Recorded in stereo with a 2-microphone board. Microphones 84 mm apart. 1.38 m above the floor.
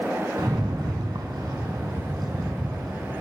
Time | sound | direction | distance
0.4 | a rattle | 55° right (ahead or behind) | 2.5 m